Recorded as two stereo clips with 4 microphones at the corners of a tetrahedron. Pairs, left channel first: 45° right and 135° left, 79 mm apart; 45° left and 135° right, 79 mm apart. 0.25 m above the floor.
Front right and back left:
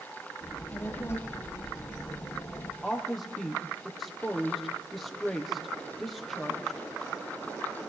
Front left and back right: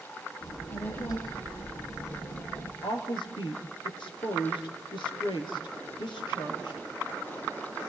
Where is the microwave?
No microwave in this recording.